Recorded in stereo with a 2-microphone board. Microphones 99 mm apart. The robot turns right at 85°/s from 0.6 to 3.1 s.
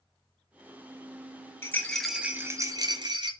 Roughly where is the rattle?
Behind left.